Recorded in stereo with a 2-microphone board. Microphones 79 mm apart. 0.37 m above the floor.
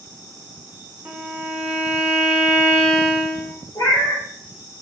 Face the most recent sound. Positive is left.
turn(degrees=60)  # may be behind; listen again after turning